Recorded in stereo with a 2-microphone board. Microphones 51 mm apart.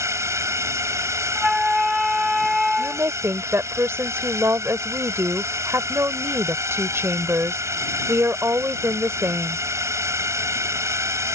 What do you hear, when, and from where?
0.0 s a drone: 75° right (ahead or behind)
1.4 s a flute: 5° right (ahead or behind)
2.8 s a woman speaking: 55° right (ahead or behind)